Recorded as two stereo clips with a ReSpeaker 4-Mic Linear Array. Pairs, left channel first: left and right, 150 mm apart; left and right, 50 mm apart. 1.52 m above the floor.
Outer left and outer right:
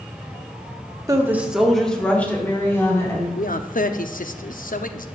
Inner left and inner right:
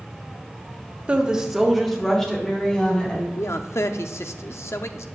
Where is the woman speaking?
25° right (ahead or behind), 1.4 m; by 3.3 s 20° left (ahead or behind), 4 m.